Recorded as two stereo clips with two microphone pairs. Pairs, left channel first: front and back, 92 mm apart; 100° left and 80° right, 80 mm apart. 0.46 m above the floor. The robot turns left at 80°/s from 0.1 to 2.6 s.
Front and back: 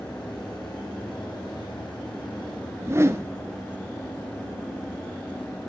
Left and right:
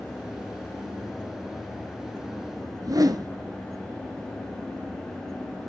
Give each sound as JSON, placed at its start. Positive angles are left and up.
{"t": 2.8, "sound": "a whoosh", "azimuth_deg": -115, "distance_m": 1.5}